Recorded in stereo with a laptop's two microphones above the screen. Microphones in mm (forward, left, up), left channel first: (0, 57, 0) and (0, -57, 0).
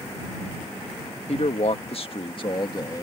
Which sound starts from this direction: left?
A man speaking, at 1.3 s.